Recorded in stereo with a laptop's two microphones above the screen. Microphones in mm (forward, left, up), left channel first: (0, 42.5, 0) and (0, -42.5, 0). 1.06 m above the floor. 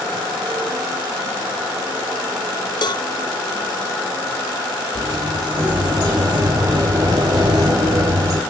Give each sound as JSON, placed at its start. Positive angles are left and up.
{"t": 2.8, "sound": "a cowbell", "side_deg": 55, "distance_m": 0.6}
{"t": 5.0, "sound": "a sliding door", "side_deg": -50, "distance_m": 4.0}